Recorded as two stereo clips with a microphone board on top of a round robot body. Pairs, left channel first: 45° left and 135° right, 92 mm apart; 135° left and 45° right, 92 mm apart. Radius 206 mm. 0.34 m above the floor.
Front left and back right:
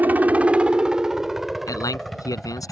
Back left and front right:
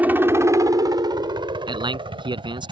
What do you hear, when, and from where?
0.0 s a helicopter: 95° right; by 2.7 s 40° right
1.7 s a man speaking: 10° right